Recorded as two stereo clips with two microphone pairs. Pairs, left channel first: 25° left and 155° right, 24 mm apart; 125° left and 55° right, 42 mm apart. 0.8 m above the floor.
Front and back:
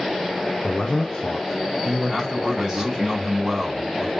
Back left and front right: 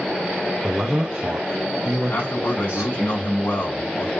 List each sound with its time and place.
0.6 s a man speaking: 20° left, 0.6 m; by 3.1 s 95° right, 1.2 m
2.1 s a man speaking: 145° left, 2.5 m